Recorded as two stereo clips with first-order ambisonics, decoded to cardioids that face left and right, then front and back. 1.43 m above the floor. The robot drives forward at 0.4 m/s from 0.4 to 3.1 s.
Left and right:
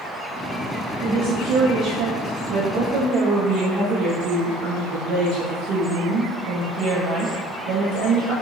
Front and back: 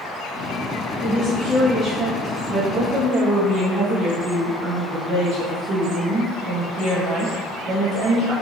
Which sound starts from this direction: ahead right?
A woman speaking, at 1.0 s.